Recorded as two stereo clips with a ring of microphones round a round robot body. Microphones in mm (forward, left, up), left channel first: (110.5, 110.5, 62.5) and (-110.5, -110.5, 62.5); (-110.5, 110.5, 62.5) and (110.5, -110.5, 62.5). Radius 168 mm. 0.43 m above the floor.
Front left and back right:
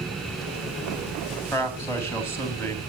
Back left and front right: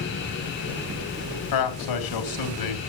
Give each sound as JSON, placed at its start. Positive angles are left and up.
{"t": 1.5, "sound": "a man speaking", "azimuth_deg": 130, "distance_m": 3.5}